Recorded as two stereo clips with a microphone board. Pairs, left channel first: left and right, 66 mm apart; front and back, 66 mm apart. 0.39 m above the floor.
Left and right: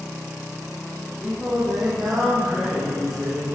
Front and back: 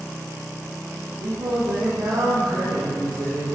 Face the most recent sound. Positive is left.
turn(degrees=-175)